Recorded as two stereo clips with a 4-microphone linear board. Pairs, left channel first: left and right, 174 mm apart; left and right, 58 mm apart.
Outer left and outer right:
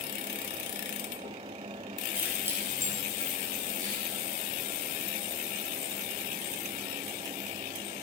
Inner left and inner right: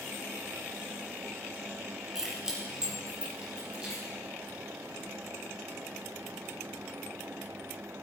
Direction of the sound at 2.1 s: 10° right (ahead or behind).